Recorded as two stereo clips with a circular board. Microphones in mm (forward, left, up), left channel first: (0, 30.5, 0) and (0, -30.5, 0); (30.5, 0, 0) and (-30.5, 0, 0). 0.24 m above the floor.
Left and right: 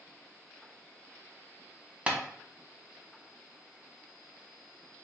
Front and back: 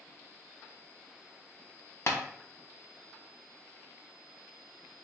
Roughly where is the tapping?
Ahead right.